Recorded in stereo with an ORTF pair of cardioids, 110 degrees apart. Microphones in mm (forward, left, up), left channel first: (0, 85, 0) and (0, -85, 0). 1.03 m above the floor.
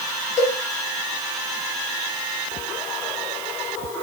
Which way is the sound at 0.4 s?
50° left.